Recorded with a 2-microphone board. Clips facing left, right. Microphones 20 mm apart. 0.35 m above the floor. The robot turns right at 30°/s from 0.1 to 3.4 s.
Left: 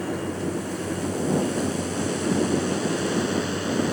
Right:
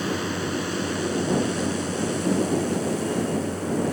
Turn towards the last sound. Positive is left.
turn(degrees=40)